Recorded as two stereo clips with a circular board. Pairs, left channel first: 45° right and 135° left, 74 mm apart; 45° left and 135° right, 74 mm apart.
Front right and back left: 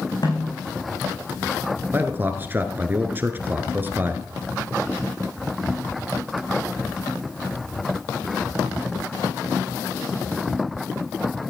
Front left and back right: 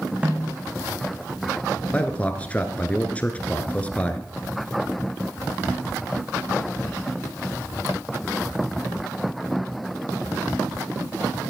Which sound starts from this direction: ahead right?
A snare drum, at 0.2 s.